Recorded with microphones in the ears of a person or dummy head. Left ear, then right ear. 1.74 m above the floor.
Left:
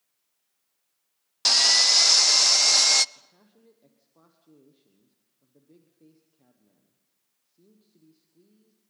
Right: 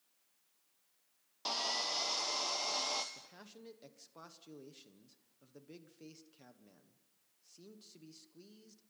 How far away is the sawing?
About 0.5 m.